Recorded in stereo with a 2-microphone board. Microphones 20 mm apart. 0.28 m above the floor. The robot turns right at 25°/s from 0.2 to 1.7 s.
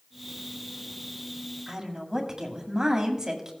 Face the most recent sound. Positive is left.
turn(degrees=-35)  # may be behind; listen again after turning